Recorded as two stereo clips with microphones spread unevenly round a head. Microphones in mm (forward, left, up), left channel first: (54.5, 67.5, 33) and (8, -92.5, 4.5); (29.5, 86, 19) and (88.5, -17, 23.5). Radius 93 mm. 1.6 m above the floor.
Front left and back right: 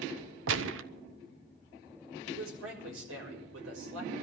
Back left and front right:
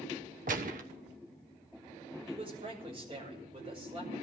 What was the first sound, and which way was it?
A gunshot, 105° right.